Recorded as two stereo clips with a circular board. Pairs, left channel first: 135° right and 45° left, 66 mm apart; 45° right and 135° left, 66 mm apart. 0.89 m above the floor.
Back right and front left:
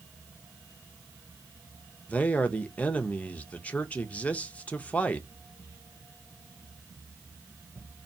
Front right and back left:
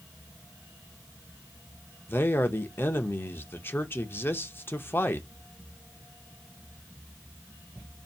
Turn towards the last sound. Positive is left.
turn(degrees=-75)